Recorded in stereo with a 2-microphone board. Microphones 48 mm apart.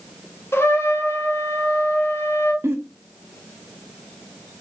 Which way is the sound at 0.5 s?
60° left (ahead or behind).